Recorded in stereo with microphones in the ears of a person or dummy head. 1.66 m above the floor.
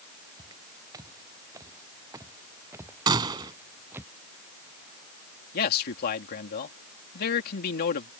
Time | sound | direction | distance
0.4 | footsteps | 20° right (ahead or behind) | ?
3.1 | a gunshot | 25° right (ahead or behind) | ?
5.5 | a man speaking | 55° left (ahead or behind) | ?